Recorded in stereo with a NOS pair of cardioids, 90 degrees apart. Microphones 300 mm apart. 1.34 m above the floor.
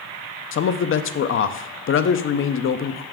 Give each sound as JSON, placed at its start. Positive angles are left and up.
{"t": 0.5, "sound": "a man speaking", "azimuth_deg": 45, "distance_m": 0.6}